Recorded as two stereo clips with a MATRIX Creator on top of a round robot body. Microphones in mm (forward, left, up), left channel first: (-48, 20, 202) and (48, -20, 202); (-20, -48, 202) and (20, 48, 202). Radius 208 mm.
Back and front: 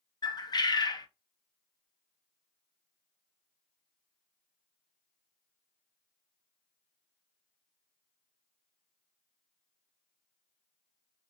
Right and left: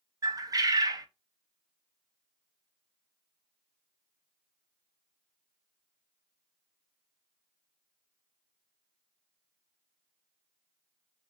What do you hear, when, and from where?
0.2 s a bird: 115° left, 0.8 m